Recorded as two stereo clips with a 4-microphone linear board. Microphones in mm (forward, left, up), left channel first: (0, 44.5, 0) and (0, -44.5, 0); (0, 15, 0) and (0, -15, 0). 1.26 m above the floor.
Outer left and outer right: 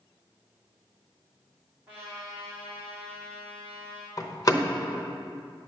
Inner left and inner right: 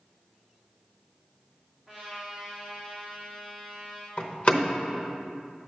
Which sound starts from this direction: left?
A door slam, at 4.2 s.